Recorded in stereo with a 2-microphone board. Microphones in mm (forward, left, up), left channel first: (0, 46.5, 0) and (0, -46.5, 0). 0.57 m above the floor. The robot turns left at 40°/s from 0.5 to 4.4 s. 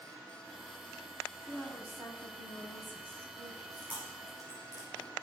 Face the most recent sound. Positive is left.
turn(degrees=0)  # may be behind; listen again after turning